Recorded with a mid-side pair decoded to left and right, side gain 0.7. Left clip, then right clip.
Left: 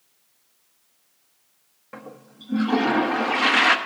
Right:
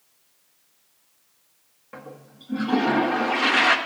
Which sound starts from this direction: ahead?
A toilet flushing, at 1.9 s.